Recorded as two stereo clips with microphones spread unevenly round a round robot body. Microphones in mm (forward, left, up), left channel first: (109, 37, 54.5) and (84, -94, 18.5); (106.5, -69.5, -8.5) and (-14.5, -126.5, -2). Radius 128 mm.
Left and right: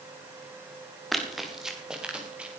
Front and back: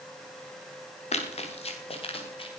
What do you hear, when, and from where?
1.1 s running footsteps: 10° right, 5 m; by 2.6 s 20° right, 7 m